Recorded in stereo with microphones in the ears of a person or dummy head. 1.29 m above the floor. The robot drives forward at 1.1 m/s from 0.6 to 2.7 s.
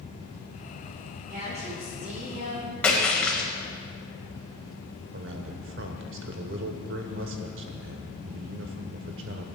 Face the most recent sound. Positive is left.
turn(degrees=-60)  # may be behind; listen again after turning